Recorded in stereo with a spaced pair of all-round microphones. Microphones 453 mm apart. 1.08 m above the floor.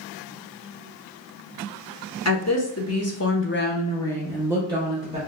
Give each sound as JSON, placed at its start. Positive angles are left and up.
{"t": 2.2, "sound": "a woman speaking", "side_deg": 35, "distance_m": 1.1}